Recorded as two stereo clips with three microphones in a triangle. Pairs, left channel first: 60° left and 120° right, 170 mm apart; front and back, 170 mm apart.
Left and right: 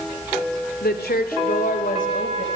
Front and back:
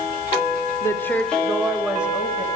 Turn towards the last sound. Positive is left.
turn(degrees=100)